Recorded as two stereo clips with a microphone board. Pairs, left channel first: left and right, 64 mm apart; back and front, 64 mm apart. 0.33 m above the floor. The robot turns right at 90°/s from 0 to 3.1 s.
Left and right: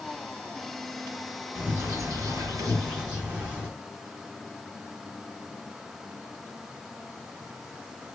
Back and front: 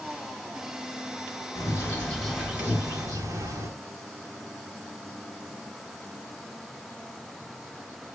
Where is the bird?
155° right, 2.5 m; by 3.7 s 15° right, 2.5 m.